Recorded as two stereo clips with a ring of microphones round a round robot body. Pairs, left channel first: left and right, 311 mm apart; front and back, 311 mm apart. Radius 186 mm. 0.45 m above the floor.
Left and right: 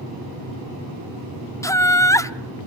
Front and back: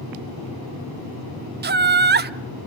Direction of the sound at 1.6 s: 165° left.